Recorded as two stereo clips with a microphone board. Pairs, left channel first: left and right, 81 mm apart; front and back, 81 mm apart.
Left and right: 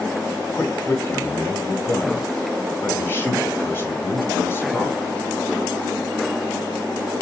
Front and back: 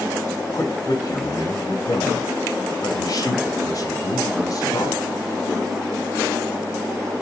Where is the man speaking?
35° left, 1.9 m.